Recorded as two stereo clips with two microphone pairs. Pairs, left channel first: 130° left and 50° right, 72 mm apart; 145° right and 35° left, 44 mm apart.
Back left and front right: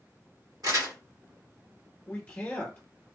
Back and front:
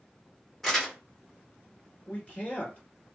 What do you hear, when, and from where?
0.6 s crumpling: 65° right, 1.6 m
2.1 s a man speaking: 170° right, 1.4 m